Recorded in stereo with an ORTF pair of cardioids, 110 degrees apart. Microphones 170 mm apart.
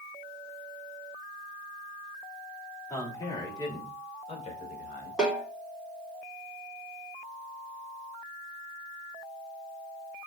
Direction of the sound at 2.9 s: 15° left.